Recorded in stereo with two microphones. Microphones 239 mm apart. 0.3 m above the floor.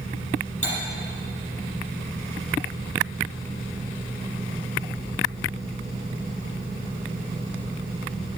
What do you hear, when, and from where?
0.6 s cutlery clinking: 55° left (ahead or behind), 6 m